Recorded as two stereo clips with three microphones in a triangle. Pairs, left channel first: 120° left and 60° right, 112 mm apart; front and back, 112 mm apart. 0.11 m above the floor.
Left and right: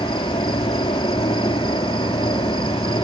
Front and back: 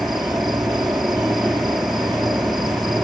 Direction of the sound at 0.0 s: 90° left.